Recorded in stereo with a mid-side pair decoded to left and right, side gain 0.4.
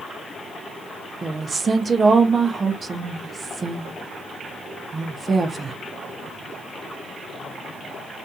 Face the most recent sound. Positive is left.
turn(degrees=-35)